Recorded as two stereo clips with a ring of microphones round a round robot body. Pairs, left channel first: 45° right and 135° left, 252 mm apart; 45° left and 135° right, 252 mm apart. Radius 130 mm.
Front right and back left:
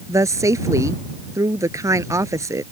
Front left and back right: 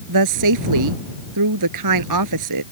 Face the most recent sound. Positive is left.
turn(degrees=-145)